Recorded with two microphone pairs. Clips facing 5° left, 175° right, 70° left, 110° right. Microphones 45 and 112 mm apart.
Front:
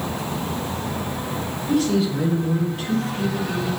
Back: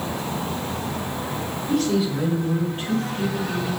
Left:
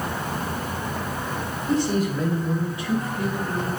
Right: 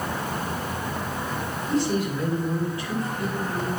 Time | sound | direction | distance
1.7 | a man speaking | 95° left | 2 m